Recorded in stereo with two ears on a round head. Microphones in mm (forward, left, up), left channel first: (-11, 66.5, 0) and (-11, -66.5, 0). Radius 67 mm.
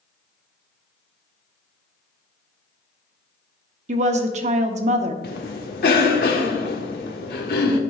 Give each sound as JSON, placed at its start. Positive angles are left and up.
{"t": 3.9, "sound": "a woman speaking", "side_deg": -50, "distance_m": 0.9}
{"t": 5.2, "sound": "a cough", "side_deg": 70, "distance_m": 1.3}